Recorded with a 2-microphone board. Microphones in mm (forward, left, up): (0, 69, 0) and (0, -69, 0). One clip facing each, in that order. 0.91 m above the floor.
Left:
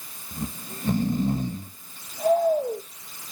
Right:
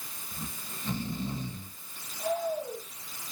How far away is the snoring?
About 0.8 m.